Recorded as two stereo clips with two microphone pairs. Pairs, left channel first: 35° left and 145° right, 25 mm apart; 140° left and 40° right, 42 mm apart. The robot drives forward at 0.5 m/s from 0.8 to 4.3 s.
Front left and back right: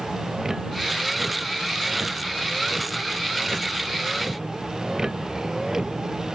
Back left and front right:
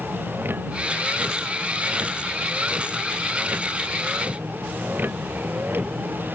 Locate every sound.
0.0 s a vehicle: 75° right